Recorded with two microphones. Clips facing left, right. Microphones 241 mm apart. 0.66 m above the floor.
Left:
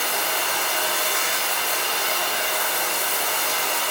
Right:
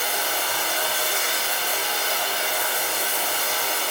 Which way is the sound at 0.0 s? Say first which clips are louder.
Left 1 dB; 70° left (ahead or behind).